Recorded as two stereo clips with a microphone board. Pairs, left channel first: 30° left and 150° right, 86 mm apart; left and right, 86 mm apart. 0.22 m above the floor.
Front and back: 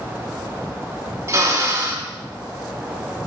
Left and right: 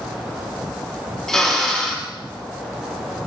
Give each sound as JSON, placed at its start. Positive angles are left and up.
{"t": 1.3, "sound": "a drill", "azimuth_deg": 170, "distance_m": 2.0}